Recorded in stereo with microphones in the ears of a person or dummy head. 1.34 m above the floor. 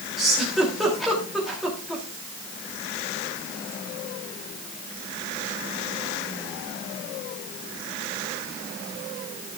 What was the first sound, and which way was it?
A giggle, centre (ahead or behind).